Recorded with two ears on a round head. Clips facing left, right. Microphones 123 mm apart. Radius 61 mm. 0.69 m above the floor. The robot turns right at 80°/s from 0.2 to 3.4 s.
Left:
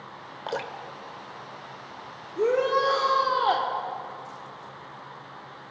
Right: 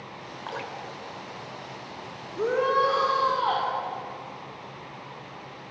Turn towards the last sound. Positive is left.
turn(degrees=100)